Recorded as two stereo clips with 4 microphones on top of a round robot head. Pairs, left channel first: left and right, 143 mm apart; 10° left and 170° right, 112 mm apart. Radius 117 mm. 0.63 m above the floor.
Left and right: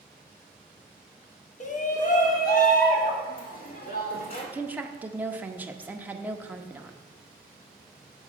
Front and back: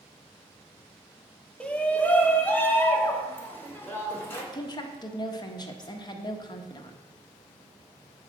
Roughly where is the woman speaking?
Ahead.